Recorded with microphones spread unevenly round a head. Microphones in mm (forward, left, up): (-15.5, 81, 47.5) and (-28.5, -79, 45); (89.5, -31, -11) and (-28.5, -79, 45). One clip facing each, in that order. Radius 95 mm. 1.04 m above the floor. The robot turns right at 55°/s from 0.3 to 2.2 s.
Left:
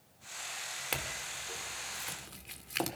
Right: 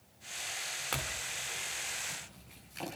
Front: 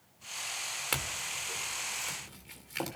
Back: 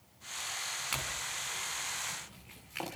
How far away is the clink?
About 2.5 m.